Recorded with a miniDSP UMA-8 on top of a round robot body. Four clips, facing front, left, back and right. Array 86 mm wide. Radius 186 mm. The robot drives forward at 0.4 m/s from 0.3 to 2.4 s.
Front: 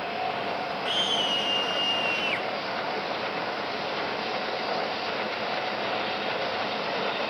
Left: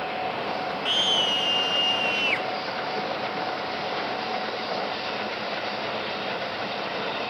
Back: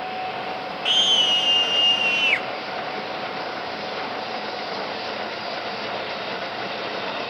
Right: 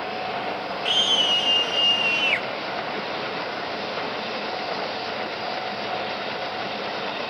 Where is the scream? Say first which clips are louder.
Right 1 dB, back 3 dB; 175° left, 3 m.